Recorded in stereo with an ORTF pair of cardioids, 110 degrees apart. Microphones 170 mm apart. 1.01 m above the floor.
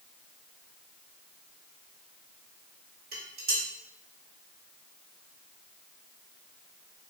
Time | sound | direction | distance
3.1 | dishes clattering | 60° right | 2.0 m